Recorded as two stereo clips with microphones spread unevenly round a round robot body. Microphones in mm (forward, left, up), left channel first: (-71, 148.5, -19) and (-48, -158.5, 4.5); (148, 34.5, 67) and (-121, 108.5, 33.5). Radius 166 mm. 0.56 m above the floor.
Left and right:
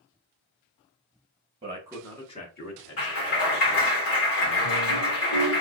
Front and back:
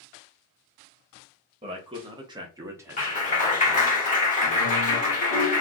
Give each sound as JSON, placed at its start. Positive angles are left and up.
{"t": 1.6, "sound": "a man speaking", "azimuth_deg": -145, "distance_m": 0.8}
{"t": 3.0, "sound": "a clap", "azimuth_deg": 50, "distance_m": 1.9}